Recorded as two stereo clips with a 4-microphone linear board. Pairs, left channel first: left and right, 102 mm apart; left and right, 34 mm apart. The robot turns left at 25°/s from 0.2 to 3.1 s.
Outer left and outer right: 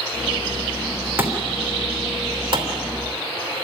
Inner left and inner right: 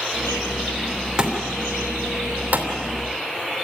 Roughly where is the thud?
Right.